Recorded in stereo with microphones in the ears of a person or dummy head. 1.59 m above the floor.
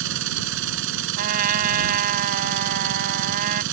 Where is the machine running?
75° right (ahead or behind).